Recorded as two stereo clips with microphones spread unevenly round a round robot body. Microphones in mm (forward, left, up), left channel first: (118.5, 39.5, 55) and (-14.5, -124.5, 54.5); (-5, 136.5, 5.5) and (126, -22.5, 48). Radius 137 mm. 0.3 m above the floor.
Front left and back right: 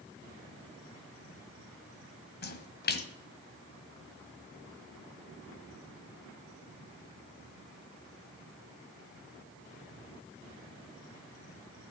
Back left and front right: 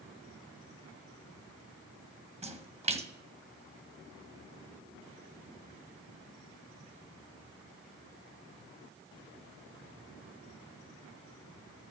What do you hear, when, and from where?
2.4 s a splash: 15° left, 1.5 m